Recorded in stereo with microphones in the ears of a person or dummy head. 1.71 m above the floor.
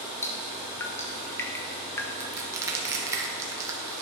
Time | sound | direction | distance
0.2 | dripping | 20° left (ahead or behind) | 1.0 m
2.2 | crushing | 20° right (ahead or behind) | 1.6 m